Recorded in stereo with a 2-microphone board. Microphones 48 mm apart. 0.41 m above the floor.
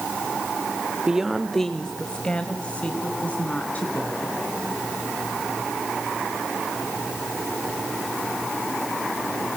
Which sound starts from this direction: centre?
A woman speaking, at 1.1 s.